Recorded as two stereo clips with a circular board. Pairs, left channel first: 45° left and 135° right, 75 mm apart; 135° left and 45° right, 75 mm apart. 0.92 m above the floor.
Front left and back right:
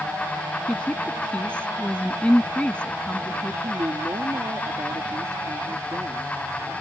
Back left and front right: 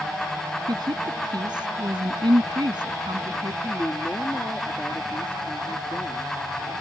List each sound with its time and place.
0.7 s a woman speaking: 30° right
3.6 s a woman speaking: 160° right